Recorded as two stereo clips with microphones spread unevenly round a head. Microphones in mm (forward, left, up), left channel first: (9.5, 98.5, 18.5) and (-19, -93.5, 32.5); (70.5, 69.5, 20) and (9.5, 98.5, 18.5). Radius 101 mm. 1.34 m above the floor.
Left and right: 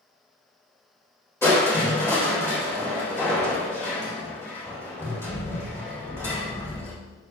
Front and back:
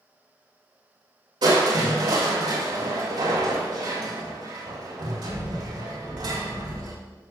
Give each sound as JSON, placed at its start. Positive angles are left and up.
{"t": 1.4, "sound": "crushing", "azimuth_deg": 160, "distance_m": 3.5}